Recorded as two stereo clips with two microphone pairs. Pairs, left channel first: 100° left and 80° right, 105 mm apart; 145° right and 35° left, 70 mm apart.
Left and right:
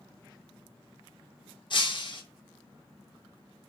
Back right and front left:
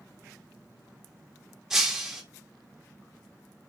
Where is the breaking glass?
115° left, 1.0 m.